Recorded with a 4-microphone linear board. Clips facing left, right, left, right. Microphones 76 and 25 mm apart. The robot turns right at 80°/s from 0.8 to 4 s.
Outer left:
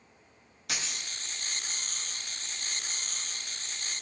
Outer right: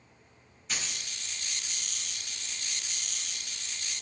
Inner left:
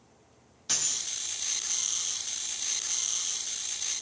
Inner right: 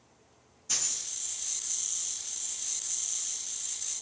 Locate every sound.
0.7 s a dropped coin: 80° left, 1.7 m; by 1.1 s 60° left (ahead or behind), 1.7 m